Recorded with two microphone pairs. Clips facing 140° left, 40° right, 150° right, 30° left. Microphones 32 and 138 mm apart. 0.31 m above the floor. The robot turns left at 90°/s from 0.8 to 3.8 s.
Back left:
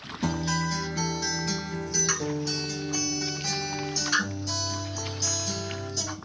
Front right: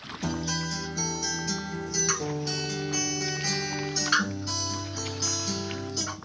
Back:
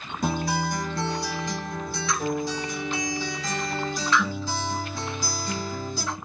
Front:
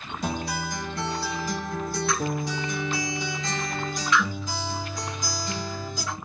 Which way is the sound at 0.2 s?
170° left.